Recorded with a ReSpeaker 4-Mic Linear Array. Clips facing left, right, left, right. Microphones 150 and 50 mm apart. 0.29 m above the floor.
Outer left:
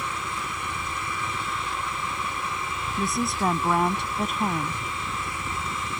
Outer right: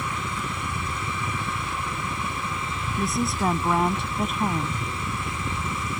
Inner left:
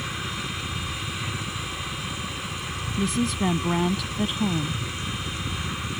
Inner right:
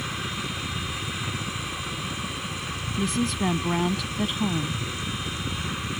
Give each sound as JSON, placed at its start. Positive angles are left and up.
{"t": 0.0, "sound": "a helicopter", "side_deg": -25}
{"t": 3.0, "sound": "a woman speaking", "side_deg": 0}